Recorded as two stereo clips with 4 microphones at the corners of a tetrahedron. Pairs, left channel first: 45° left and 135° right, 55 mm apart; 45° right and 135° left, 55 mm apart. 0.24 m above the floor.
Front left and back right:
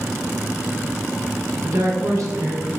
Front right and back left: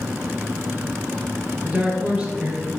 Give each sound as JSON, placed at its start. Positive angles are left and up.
{"t": 1.6, "sound": "a woman speaking", "azimuth_deg": -160, "distance_m": 3.0}